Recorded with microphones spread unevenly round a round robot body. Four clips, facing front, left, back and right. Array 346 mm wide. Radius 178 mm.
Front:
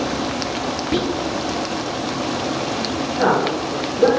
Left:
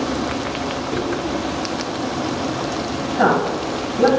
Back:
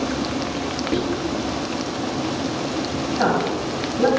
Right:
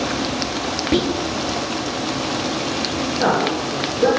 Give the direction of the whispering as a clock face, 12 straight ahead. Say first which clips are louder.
Right 5 dB, front 2 dB; 2 o'clock.